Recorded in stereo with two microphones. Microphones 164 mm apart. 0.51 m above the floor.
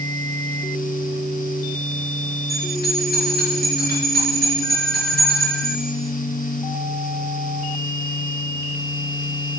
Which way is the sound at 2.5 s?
70° left (ahead or behind).